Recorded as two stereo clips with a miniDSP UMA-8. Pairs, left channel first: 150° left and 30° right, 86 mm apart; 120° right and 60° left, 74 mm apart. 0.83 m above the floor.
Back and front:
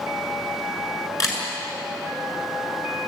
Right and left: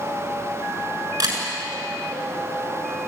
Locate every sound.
1.2 s a camera shutter: 100° left, 6.5 m